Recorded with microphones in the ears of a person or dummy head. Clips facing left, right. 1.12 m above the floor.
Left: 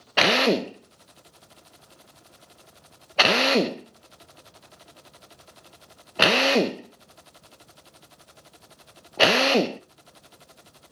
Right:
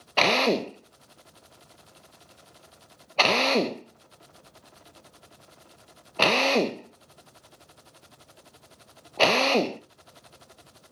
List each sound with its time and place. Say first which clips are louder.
0.2 s a drill: left 2 dB; 10° left (ahead or behind), 0.6 m